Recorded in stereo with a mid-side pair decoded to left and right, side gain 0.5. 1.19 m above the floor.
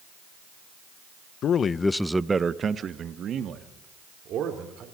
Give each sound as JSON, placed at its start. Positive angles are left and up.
{"t": 1.4, "sound": "a man speaking", "azimuth_deg": 60, "distance_m": 0.9}